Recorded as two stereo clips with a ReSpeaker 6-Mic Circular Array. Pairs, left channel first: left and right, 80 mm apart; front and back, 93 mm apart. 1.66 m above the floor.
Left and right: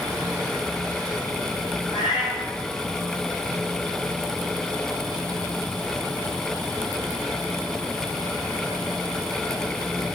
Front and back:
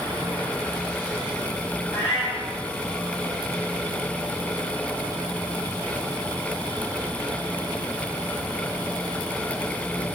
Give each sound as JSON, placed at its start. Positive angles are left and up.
{"t": 1.9, "sound": "a cat meowing", "azimuth_deg": 65, "distance_m": 6.5}